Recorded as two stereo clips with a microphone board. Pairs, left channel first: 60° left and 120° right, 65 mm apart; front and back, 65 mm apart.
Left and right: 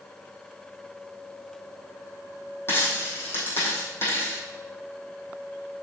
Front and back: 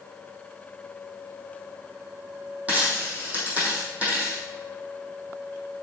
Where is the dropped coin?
115° left, 3.5 m.